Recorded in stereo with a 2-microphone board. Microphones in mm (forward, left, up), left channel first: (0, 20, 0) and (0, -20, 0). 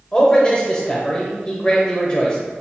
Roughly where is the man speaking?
Left.